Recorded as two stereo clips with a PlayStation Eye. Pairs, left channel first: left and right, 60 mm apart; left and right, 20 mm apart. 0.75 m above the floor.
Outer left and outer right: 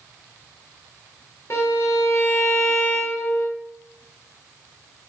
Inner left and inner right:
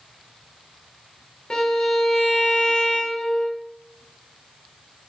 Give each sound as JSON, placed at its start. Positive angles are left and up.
{"t": 1.5, "sound": "a violin", "side_deg": 50, "distance_m": 1.2}